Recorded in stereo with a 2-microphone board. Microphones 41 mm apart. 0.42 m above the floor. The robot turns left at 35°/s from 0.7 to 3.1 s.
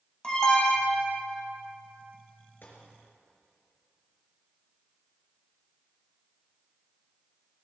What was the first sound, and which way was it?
An alarm, 20° left (ahead or behind).